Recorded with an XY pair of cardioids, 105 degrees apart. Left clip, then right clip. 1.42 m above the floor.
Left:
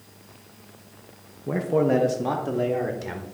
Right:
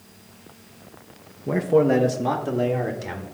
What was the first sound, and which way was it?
A man speaking, 15° right.